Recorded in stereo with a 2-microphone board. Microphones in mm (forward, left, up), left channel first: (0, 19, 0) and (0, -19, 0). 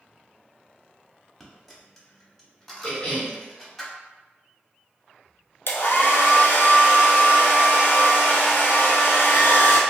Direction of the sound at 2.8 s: 30° left (ahead or behind).